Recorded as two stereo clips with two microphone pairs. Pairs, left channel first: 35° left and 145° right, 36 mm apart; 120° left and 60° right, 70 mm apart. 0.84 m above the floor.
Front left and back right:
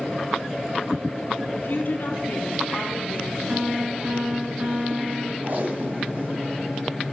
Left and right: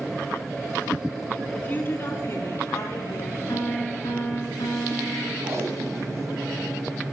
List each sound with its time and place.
1.5 s a woman speaking: 55° left, 1.7 m; by 4.5 s 100° left, 3 m
3.5 s a piano: 155° left, 4 m
5.4 s tape being pulled: 105° right, 1.7 m